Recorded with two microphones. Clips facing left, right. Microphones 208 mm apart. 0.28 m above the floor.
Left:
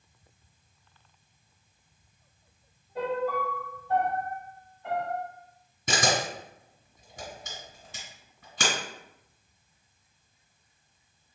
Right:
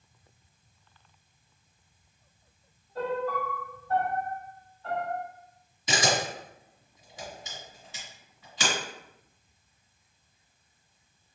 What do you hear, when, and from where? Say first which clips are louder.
3.0 s a piano: left 1 dB; 15° left (ahead or behind), 0.9 m
5.9 s a camera shutter: even; 55° left (ahead or behind), 1.9 m